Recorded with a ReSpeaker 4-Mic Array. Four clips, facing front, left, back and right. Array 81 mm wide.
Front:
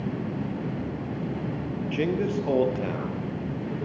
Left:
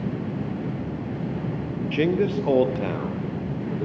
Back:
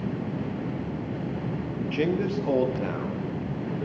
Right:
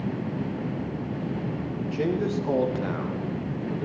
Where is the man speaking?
90° left, 3 m; by 3.9 s 80° left, 4 m.